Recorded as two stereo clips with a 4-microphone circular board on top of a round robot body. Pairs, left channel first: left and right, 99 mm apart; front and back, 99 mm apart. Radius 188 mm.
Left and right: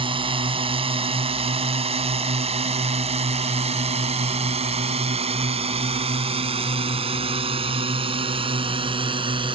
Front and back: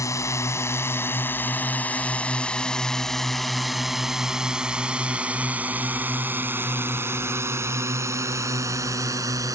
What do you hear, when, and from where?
0.0 s a drone: 60° right; by 9.5 s 125° right